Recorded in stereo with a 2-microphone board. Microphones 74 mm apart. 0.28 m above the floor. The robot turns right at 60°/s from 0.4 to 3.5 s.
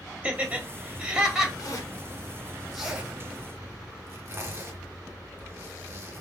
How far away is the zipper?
About 3 m.